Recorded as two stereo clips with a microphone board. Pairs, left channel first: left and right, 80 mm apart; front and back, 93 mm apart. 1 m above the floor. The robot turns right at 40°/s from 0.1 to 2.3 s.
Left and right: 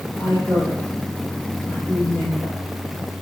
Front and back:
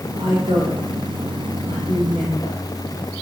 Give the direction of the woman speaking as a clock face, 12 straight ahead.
8 o'clock.